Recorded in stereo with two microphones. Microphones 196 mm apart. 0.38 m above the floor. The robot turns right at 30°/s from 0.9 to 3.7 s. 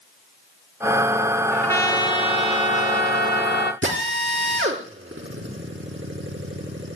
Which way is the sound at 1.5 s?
5° left.